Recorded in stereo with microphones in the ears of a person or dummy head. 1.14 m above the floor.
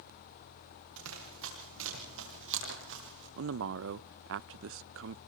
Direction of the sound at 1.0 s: 80° right.